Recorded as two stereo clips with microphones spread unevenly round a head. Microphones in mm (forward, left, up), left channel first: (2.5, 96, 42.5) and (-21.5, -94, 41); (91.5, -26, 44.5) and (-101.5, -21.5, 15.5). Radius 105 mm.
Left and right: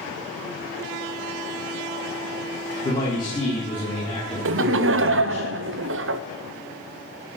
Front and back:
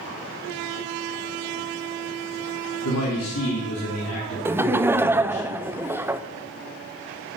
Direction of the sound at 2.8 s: 15° left.